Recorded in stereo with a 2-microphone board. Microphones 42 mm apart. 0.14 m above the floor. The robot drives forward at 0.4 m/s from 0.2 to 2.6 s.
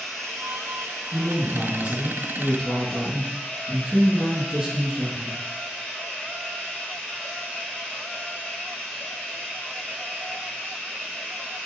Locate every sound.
0.0 s running water: 10° left (ahead or behind), 1.6 m; by 11.7 s 5° left (ahead or behind), 2.5 m
1.1 s a woman speaking: 30° right (ahead or behind), 2 m; by 5.4 s 25° right (ahead or behind), 2.5 m